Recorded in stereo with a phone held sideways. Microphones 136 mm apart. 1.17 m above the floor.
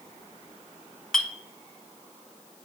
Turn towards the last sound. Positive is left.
turn(degrees=5)  # may be behind; listen again after turning